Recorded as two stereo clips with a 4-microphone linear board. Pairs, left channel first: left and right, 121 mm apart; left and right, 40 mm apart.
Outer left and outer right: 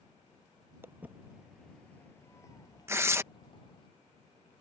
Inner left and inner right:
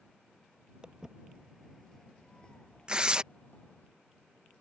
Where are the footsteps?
20° right (ahead or behind); by 3.9 s 40° left (ahead or behind).